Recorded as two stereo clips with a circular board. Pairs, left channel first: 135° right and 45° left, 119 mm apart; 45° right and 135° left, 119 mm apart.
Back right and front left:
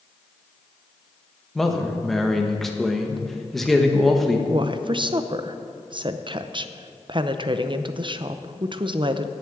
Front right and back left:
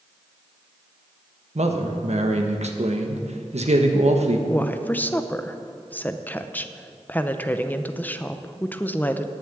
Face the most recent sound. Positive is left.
turn(degrees=25)